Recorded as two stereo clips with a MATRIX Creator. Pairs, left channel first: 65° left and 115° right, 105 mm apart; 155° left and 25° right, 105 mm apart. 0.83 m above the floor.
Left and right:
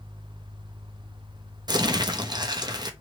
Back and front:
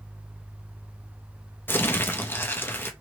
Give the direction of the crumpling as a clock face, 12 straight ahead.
5 o'clock.